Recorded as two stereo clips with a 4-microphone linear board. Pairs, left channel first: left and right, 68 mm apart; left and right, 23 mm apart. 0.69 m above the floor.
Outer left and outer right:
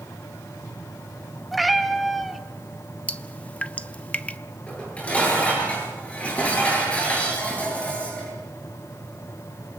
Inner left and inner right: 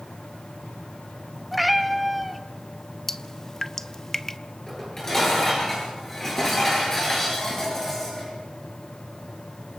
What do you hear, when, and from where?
1.5 s a cat meowing: centre (ahead or behind), 1.0 m
3.1 s dripping: 20° left (ahead or behind), 0.6 m
4.7 s dishes clattering: 20° left (ahead or behind), 8.5 m